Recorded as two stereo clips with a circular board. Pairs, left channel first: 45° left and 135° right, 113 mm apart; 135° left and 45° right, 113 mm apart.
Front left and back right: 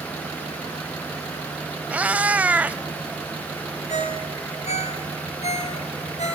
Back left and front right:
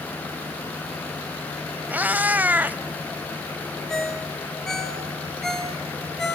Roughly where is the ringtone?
Ahead left.